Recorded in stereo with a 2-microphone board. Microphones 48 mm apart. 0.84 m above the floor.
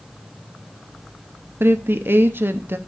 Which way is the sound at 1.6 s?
50° right (ahead or behind).